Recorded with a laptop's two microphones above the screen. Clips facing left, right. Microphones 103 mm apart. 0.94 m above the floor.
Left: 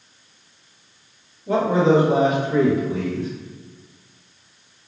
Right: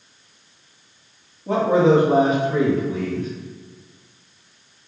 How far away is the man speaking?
About 1.5 m.